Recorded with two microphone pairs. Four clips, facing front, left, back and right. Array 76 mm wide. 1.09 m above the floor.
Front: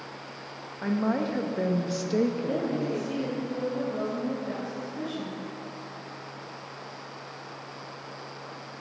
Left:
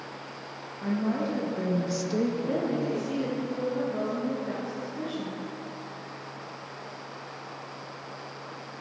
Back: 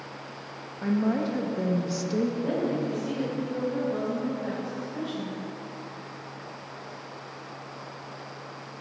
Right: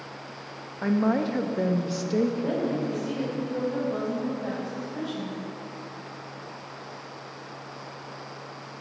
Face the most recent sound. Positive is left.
turn(degrees=-120)